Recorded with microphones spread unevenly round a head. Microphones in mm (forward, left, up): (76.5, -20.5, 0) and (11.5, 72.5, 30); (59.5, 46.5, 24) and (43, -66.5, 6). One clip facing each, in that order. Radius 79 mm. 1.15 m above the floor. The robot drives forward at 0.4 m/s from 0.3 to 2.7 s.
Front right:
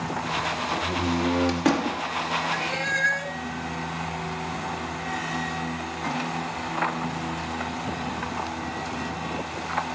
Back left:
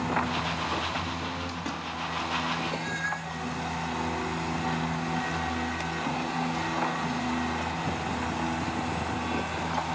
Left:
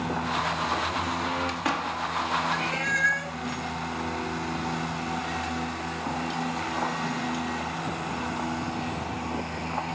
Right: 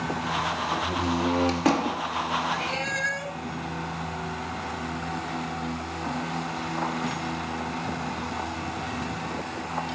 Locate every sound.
0.8 s a door slam: 40° right; by 2.0 s 50° right
2.5 s a cat meowing: 35° right